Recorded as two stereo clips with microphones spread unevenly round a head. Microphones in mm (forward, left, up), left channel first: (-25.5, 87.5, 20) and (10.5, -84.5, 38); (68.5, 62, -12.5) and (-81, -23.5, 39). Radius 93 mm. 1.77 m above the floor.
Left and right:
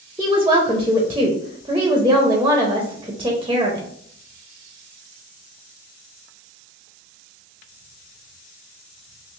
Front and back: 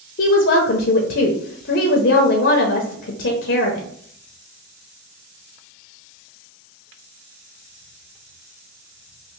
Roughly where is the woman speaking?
Ahead.